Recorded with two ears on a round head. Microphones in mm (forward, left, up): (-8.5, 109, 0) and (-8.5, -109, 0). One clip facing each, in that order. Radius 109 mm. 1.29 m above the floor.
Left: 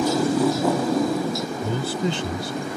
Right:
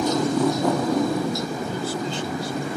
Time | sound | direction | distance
0.0 | a motorcycle | 5° left (ahead or behind) | ?
1.6 | a man speaking | 55° left (ahead or behind) | ?